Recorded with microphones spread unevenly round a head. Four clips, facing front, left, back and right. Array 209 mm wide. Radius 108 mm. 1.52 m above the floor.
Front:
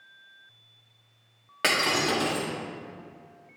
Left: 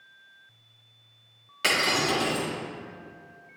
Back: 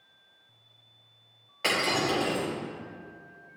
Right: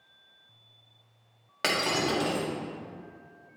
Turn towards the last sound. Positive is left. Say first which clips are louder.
# left 2 dB, front 1 dB
turn(degrees=-30)